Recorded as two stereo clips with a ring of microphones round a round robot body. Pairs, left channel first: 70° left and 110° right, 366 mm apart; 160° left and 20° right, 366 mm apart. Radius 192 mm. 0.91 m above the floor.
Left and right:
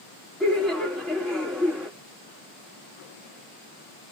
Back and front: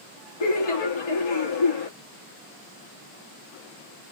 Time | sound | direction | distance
0.4 | laughter | 155° left | 1.5 m